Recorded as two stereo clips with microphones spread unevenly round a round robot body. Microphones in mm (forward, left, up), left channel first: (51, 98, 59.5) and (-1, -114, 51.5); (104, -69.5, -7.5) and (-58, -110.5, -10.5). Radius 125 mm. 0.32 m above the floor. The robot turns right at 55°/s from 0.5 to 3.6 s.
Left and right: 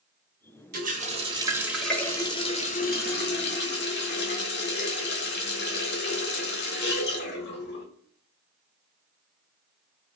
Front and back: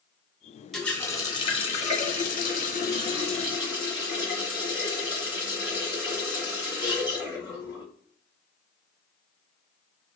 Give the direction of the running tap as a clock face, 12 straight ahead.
3 o'clock.